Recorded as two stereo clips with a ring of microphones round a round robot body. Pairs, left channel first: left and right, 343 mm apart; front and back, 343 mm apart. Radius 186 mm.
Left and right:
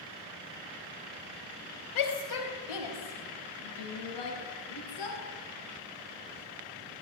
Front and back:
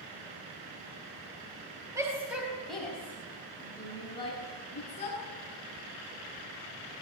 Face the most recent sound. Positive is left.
turn(degrees=75)